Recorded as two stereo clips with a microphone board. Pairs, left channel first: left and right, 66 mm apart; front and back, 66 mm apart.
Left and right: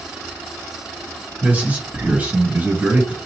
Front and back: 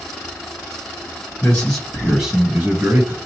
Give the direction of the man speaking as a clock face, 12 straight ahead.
2 o'clock.